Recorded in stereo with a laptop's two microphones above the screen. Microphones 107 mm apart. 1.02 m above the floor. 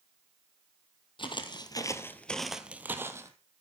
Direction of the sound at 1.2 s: 50° left (ahead or behind).